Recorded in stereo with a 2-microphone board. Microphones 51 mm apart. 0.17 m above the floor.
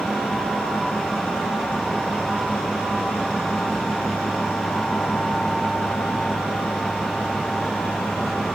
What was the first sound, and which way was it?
Only background noise.